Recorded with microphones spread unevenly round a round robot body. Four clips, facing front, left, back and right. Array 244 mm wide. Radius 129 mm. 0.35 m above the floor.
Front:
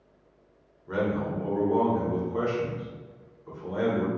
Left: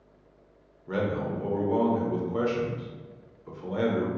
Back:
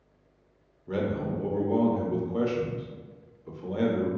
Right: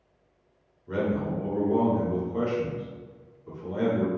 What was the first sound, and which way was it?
A man speaking, 170° left.